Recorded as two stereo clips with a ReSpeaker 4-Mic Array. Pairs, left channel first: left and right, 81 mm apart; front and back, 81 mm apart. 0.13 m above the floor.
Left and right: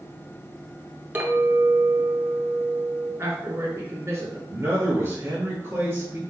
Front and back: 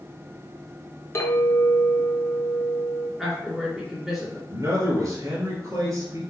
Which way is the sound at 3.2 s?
95° right.